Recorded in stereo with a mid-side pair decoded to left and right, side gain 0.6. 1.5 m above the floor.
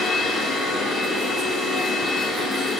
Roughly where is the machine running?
Ahead left.